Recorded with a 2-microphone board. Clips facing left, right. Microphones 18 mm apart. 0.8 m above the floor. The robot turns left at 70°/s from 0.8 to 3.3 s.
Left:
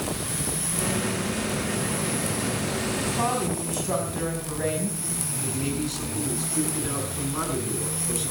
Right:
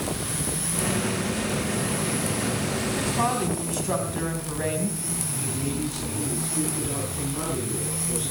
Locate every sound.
3.0 s a woman speaking: 30° right (ahead or behind), 4.5 m; by 5.0 s 5° right (ahead or behind), 4.5 m
5.4 s a man speaking: 55° left (ahead or behind), 9 m